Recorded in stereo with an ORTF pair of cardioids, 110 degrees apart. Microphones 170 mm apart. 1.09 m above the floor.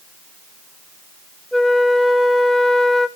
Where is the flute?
Straight ahead, 1.6 m.